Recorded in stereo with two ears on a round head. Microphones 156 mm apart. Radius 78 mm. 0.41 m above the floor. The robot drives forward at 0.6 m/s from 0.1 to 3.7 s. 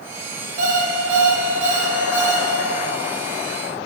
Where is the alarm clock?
45° right (ahead or behind), 6 m; by 2.5 s 40° right (ahead or behind), 7 m.